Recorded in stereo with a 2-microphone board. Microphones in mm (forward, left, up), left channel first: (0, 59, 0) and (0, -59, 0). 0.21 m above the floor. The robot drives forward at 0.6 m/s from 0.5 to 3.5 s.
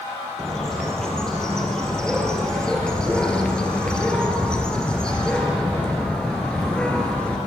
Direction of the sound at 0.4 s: 5° left (ahead or behind).